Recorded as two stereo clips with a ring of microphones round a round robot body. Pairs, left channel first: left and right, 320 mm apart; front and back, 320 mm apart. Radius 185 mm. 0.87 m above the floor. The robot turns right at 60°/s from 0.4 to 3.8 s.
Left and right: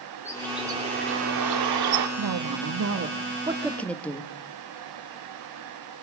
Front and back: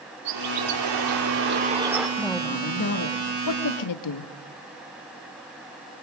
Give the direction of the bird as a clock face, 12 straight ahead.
6 o'clock.